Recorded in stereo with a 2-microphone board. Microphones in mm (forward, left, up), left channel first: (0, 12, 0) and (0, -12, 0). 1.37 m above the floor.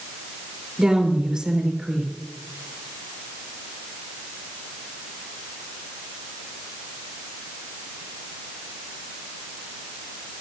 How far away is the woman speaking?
About 3.5 m.